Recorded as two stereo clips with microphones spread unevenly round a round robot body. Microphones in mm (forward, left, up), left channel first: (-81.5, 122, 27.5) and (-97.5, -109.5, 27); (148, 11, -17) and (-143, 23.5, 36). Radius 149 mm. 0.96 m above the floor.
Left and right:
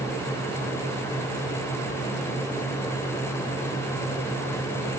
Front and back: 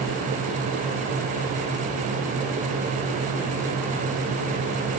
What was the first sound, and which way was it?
Only background noise.